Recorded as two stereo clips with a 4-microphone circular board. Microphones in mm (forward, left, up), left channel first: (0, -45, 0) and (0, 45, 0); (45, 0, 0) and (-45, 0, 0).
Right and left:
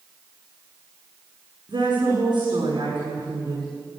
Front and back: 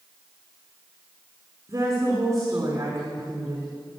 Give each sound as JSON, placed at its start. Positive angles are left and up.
{"t": 1.7, "sound": "a woman speaking", "azimuth_deg": 125, "distance_m": 7.5}